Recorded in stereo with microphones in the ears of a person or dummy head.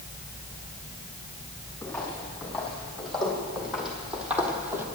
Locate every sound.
1.8 s footsteps: 10° left (ahead or behind), 3 m; by 4.8 s 10° right (ahead or behind), 1.6 m